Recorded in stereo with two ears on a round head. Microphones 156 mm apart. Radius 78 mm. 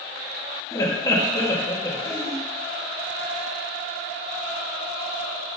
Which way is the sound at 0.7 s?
20° left (ahead or behind).